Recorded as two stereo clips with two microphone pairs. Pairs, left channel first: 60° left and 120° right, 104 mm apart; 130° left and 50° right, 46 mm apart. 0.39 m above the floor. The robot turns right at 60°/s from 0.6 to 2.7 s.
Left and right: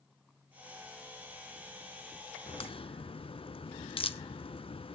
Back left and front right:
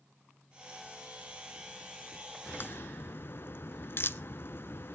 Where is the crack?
75° left, 0.7 m; by 5.0 s 90° left, 0.7 m.